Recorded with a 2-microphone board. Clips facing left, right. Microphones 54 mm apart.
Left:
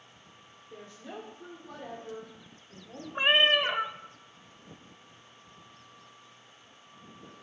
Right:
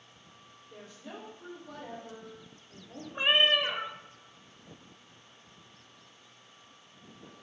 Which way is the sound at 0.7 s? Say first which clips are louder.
Left 2 dB; 5° left (ahead or behind).